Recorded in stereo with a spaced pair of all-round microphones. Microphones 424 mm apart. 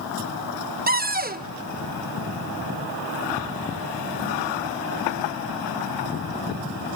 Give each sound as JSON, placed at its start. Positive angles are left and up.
{"t": 0.9, "sound": "a cupboard door", "side_deg": -20, "distance_m": 0.8}